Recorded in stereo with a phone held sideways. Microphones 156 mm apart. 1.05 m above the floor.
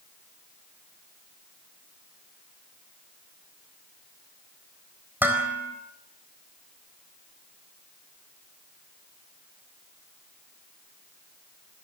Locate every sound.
5.2 s dishes clattering: 10° right (ahead or behind), 4 m